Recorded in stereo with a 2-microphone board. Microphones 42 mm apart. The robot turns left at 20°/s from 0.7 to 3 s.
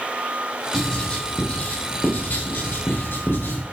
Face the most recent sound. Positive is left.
turn(degrees=65)  # may be behind; listen again after turning